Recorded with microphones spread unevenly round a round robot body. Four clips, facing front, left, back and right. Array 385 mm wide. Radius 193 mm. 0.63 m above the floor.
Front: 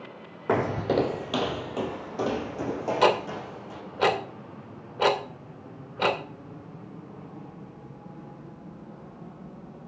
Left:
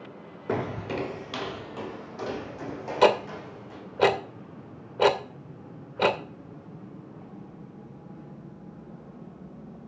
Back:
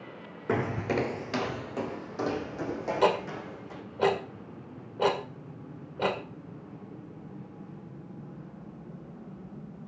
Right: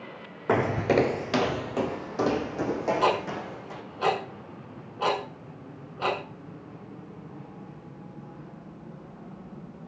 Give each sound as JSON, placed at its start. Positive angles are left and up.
{"t": 0.5, "sound": "footsteps", "azimuth_deg": -45, "distance_m": 0.6}
{"t": 3.0, "sound": "ticking", "azimuth_deg": 75, "distance_m": 1.9}